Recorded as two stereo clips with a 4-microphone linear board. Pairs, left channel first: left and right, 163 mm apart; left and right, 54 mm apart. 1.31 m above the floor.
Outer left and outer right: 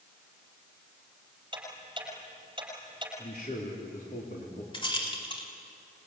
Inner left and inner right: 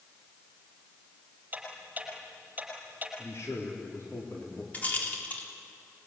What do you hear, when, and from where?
1.5 s ticking: 30° right (ahead or behind), 6.5 m
3.2 s a man speaking: 65° left (ahead or behind), 3.5 m
4.7 s a rattle: 30° left (ahead or behind), 4 m